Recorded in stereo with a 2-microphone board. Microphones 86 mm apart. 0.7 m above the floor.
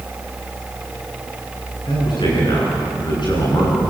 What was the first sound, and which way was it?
A man speaking, 60° left (ahead or behind).